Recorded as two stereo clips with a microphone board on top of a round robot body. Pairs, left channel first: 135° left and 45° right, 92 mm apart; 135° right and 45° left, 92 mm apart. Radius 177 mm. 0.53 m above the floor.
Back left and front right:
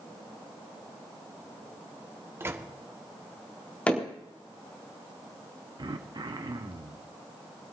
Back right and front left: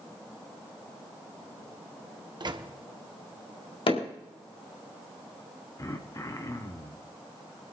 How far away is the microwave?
About 1.3 m.